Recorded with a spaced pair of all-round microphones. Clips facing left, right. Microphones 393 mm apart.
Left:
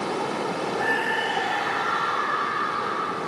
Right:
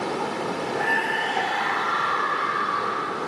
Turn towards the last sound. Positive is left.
turn(degrees=-85)